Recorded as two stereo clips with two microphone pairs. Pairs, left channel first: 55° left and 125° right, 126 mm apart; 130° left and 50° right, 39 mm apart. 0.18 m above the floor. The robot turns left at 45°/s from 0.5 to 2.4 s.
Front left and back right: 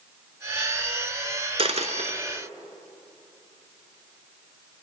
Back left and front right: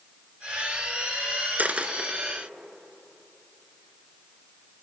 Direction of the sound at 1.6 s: 90° right.